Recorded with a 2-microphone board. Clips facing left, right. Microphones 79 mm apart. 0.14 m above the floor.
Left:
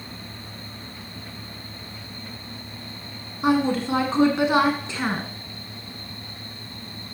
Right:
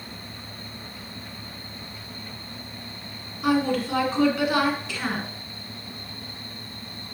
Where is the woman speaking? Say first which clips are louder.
Left 2 dB; 25° left (ahead or behind), 1.4 m.